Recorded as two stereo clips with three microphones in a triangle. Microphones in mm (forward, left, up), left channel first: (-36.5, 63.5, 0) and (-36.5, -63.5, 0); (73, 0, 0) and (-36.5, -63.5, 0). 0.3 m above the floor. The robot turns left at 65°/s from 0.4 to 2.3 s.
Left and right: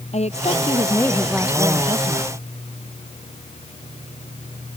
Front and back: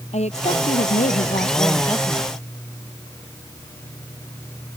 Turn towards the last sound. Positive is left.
turn(degrees=-65)